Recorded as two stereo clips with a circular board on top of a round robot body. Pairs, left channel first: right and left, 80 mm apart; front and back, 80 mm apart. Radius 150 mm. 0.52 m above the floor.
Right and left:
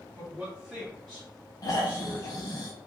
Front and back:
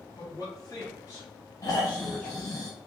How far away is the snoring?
About 1.0 m.